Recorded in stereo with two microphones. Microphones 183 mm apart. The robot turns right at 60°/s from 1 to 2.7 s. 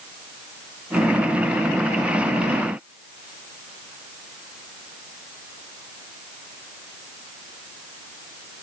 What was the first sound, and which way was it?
Only background noise.